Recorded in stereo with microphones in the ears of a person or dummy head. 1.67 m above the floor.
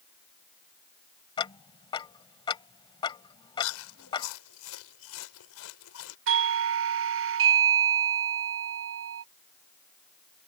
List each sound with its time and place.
1.4 s ticking: 25° left (ahead or behind)
3.6 s chewing: 75° left (ahead or behind)
6.3 s a doorbell: 55° right (ahead or behind)